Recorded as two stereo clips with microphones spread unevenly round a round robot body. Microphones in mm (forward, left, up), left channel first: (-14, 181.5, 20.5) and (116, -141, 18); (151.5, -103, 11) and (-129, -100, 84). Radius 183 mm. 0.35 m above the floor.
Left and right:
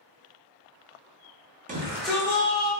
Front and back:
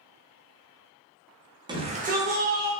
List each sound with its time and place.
1.7 s a shout: 90° right, 0.9 m; by 2.7 s 135° left, 1.1 m